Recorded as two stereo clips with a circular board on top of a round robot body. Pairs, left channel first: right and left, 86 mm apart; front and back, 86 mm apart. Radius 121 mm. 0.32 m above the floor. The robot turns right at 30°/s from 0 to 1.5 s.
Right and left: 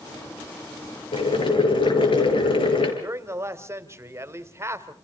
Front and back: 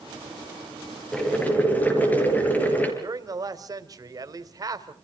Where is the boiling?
85° right, 6 m; by 2.9 s 70° right, 6 m.